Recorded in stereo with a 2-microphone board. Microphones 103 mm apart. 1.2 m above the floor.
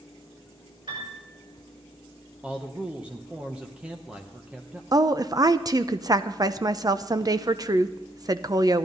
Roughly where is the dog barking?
No dog barking in this recording.